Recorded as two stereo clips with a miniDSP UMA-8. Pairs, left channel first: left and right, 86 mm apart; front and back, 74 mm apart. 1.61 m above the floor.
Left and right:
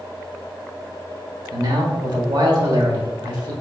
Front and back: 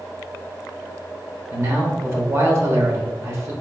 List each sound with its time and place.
1.5 s a man speaking: 125° right, 1.0 m